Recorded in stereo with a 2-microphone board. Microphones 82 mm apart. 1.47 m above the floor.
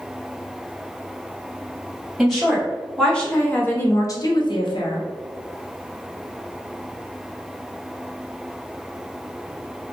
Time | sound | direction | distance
2.2 | a woman speaking | centre (ahead or behind) | 1.9 m